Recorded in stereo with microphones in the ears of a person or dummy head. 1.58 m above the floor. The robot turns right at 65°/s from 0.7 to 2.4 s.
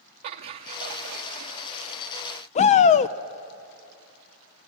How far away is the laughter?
About 0.6 m.